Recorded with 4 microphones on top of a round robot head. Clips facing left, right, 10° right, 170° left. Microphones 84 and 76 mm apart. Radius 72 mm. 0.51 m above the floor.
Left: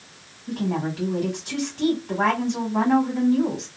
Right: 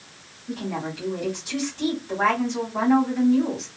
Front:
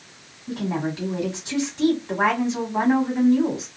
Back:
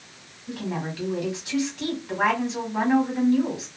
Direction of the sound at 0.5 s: 50° left.